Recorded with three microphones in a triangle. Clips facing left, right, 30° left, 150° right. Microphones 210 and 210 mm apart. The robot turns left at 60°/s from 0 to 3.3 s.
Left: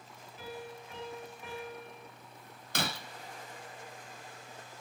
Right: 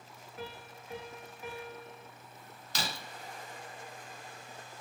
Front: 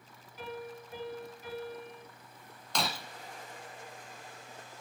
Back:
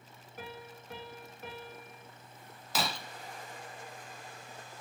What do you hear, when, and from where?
0.4 s a piano: 115° right, 5.5 m; by 2.0 s 145° left, 5.5 m
2.8 s breaking glass: 125° left, 1.6 m; by 3.0 s 110° left, 1.6 m